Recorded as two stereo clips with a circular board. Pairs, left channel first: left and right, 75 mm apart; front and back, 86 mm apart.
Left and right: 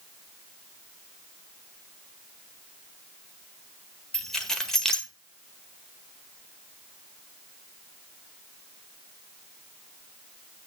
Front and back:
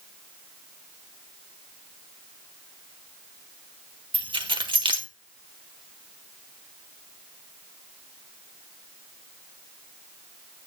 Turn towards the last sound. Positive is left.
turn(degrees=175)